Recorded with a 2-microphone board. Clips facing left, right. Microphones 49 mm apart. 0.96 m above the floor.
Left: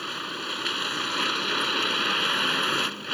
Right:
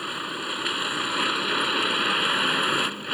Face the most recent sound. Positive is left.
turn(degrees=-5)  # may be behind; listen again after turning